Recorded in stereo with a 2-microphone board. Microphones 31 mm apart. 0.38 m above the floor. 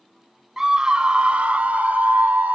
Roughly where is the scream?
Centre.